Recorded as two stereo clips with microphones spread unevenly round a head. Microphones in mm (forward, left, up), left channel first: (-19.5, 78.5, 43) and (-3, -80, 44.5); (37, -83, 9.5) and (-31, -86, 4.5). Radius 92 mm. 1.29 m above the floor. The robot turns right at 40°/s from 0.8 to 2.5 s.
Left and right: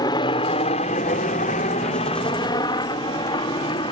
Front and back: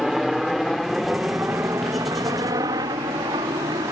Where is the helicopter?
105° left; by 3.9 s 155° left.